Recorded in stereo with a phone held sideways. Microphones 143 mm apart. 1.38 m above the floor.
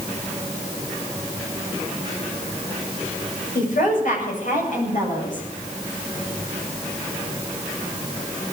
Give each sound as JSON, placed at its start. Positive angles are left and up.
{"t": 3.5, "sound": "a woman speaking", "side_deg": 75, "distance_m": 7.5}